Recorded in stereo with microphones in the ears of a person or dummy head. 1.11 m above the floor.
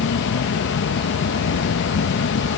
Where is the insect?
70° left (ahead or behind).